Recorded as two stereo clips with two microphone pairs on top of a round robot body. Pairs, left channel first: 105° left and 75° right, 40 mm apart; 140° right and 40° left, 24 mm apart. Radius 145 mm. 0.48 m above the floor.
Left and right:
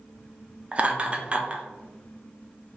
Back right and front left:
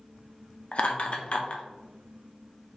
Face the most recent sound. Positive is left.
turn(degrees=-140)